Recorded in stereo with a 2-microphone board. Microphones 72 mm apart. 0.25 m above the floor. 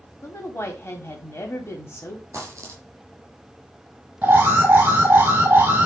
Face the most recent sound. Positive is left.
turn(degrees=-25)  # may be behind; listen again after turning